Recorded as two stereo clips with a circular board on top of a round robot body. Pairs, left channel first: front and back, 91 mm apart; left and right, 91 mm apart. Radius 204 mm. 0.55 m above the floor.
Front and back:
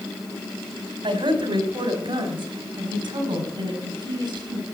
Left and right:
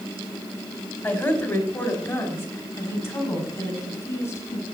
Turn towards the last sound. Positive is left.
turn(degrees=145)